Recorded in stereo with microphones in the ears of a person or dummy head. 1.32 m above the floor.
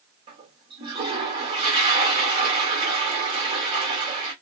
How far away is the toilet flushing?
About 1.2 m.